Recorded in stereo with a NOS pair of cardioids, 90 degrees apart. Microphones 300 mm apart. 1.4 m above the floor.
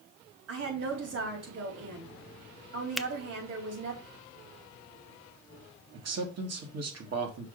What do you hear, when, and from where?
0.5 s a woman speaking: 55° right, 4 m
3.0 s a finger snap: straight ahead, 0.5 m
5.9 s a man speaking: 55° right, 2.5 m